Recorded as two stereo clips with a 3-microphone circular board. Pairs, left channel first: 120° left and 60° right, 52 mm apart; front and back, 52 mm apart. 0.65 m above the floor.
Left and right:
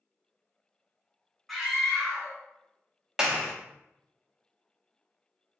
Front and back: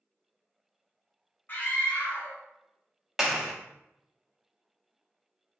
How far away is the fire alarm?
No fire alarm in this recording.